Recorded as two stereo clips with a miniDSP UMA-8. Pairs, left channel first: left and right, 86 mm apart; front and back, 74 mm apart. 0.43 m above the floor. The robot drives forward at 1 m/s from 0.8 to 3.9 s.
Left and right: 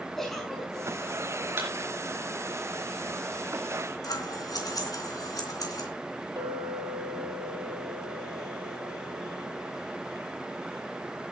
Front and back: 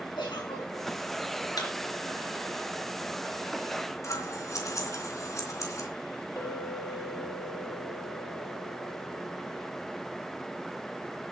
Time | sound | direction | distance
0.2 | a giggle | 5° left | 5.5 m
1.6 | a thud | 25° right | 4 m
4.0 | scissors | 45° left | 3 m
6.4 | a clink | 50° right | 7 m